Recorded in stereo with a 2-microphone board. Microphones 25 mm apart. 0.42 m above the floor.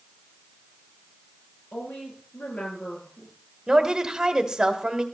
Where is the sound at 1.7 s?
85° left, 10 m.